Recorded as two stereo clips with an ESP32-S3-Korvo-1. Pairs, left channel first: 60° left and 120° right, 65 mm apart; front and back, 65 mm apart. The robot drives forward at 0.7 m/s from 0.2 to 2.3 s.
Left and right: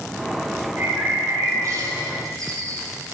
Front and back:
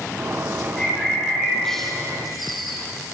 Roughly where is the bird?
Right.